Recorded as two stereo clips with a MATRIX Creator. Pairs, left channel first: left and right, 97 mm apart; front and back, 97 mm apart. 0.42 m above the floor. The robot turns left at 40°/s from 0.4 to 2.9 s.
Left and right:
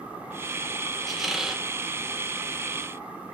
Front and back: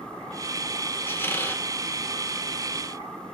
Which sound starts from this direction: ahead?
A squeak, at 1.1 s.